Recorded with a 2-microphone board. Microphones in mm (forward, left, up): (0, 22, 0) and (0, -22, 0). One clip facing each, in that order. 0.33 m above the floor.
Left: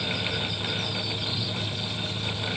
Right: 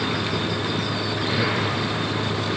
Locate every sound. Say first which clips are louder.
0.0 s a vehicle: right 5 dB; 85° right